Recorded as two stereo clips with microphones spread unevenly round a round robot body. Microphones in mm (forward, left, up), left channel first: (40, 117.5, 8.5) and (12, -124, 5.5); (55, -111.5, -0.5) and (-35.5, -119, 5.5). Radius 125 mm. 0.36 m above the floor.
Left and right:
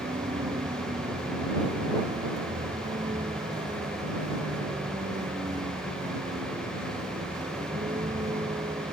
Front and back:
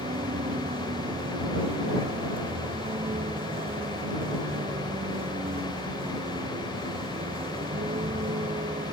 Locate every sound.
0.0 s a vehicle: 170° right